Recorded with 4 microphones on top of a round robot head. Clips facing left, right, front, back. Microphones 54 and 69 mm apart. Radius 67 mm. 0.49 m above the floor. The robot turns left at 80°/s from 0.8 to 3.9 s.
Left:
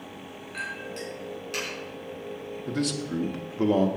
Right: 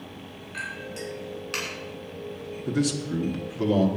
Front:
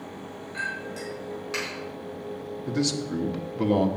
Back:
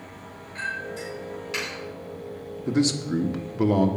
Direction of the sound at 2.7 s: 160° right.